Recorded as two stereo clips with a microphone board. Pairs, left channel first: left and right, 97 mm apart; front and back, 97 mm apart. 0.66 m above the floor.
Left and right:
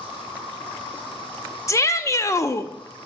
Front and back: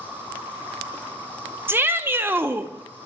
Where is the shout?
125° left, 0.6 m.